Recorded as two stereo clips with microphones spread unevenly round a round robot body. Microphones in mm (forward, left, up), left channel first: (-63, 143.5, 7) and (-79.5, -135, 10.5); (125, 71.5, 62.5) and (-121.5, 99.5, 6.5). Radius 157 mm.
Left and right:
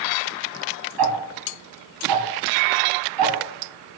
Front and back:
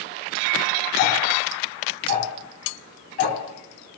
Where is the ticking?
70° right, 3 m.